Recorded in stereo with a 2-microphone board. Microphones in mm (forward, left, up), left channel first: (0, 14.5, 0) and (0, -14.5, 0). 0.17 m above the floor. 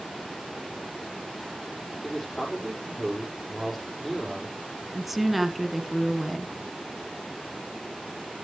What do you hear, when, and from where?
2.0 s a man speaking: 5° left (ahead or behind), 5 m
4.9 s a woman speaking: 5° right (ahead or behind), 1.3 m